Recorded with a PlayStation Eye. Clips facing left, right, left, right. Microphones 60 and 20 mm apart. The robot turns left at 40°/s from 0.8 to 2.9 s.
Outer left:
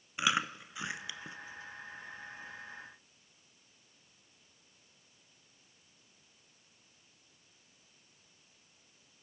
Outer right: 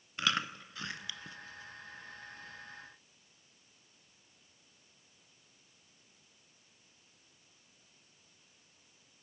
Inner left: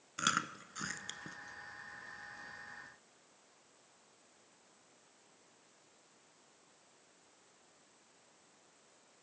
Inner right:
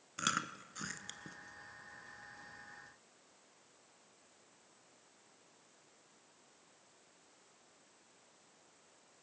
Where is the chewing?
15° left (ahead or behind), 0.8 m; by 1.4 s 20° left (ahead or behind), 0.8 m.